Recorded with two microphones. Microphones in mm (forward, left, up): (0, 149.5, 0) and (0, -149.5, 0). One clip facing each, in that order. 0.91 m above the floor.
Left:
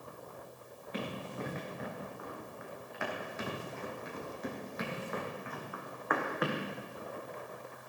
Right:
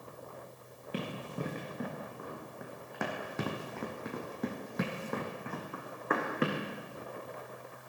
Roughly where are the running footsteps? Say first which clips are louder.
Right 1 dB; right.